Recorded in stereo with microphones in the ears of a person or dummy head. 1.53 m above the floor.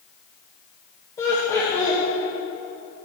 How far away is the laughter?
About 1.0 m.